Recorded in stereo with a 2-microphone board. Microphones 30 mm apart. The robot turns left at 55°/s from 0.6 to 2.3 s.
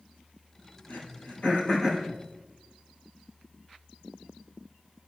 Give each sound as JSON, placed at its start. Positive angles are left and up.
{"t": 0.9, "sound": "throat clearing", "side_deg": 80, "distance_m": 4.0}